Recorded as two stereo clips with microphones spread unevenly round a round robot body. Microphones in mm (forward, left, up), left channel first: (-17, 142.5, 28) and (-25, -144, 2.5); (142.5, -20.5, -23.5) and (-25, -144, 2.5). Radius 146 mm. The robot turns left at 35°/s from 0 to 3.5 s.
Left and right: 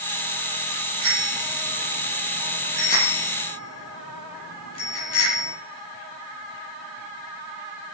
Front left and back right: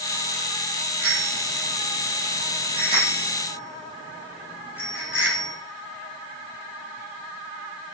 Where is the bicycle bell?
140° right, 9.5 m; by 5.5 s 130° left, 9.5 m.